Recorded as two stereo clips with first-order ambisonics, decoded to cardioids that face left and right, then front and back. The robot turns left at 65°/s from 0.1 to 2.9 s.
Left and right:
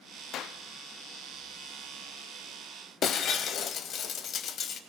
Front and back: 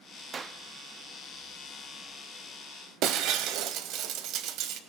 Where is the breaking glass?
145° left, 0.9 m.